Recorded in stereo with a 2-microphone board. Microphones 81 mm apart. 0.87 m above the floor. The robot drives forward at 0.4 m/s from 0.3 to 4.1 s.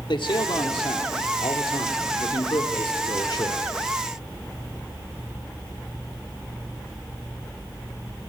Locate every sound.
0.1 s a man speaking: 75° left (ahead or behind), 2 m; by 3.7 s 60° left (ahead or behind), 2.5 m